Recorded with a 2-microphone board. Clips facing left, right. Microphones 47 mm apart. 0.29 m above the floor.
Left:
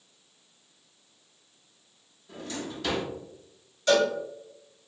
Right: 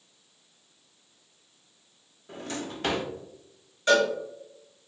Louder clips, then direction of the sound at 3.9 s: Right 1 dB; 30° right (ahead or behind).